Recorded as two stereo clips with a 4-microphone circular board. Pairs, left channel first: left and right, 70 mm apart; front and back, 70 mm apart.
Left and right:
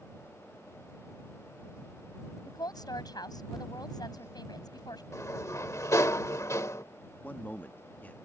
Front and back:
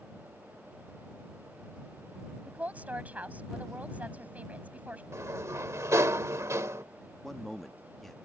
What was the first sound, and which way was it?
A woman speaking, 110° left.